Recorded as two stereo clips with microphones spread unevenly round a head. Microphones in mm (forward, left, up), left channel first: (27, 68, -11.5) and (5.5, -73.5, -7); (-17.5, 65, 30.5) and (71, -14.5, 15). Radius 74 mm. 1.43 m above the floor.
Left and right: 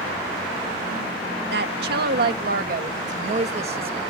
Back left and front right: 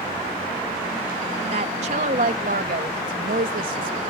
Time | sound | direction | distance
1.5 | a woman speaking | 90° right | ?